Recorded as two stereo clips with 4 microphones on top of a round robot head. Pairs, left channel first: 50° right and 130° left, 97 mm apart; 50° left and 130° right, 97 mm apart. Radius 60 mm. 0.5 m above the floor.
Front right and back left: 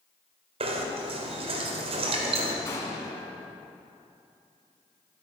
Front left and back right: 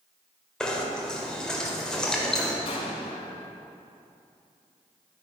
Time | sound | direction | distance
0.6 | knocking | 135° left | 1.6 m
2.6 | an explosion | 10° left | 1.8 m